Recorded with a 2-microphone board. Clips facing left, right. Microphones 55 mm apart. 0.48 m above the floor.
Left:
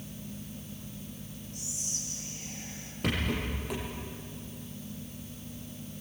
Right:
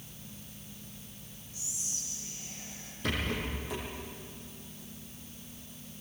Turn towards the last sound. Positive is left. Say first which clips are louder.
# left 2 dB
turn(degrees=60)  # may be behind; listen again after turning